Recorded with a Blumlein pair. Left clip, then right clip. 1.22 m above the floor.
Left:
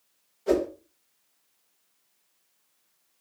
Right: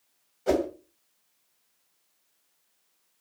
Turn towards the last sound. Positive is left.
turn(degrees=-20)